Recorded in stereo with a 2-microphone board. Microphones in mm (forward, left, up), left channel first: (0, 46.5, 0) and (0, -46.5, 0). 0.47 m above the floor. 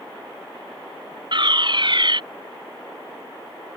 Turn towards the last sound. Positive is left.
turn(degrees=-55)  # may be behind; listen again after turning